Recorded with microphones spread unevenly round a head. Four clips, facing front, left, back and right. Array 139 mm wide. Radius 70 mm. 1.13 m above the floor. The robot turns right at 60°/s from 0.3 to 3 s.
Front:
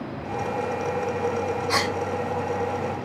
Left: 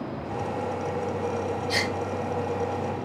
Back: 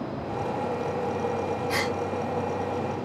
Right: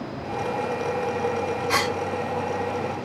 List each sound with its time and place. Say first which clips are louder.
1.7 s a gasp: right 7 dB, front 5 dB; 50° right, 8.5 m; by 1.9 s 35° right, 8.5 m